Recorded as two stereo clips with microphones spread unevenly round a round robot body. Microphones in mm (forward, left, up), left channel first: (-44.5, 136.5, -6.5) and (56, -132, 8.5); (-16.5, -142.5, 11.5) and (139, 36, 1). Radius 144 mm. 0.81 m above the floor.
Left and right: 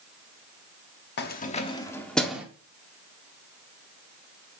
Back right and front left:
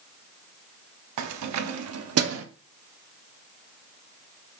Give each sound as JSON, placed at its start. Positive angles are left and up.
{"t": 1.2, "sound": "keys jangling", "azimuth_deg": 55, "distance_m": 0.8}